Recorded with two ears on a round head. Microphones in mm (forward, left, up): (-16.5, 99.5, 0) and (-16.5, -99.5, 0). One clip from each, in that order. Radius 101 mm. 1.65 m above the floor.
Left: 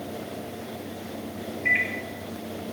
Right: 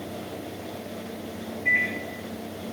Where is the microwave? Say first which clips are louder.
Even; 45° left (ahead or behind), 1.1 m.